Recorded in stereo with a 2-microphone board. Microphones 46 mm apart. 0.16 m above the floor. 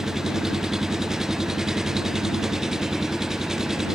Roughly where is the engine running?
Centre.